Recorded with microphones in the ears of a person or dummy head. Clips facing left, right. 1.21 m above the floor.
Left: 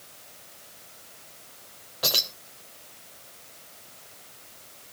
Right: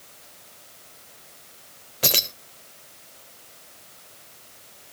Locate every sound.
2.0 s keys jangling: 30° right (ahead or behind), 0.6 m